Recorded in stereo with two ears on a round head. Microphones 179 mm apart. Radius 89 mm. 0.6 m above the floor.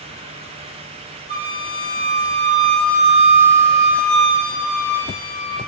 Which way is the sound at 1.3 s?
40° left (ahead or behind).